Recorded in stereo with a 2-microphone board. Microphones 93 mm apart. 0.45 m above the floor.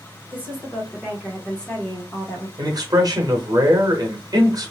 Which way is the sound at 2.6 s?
40° right (ahead or behind).